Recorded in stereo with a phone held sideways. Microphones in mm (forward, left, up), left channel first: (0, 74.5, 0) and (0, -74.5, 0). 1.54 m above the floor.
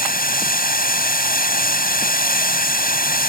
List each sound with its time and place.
0.0 s running water: 75° left (ahead or behind)